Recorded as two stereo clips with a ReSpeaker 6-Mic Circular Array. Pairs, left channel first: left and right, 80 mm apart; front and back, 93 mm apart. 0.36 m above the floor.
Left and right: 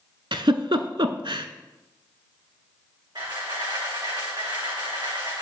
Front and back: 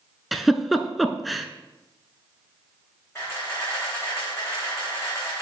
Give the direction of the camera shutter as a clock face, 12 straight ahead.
2 o'clock.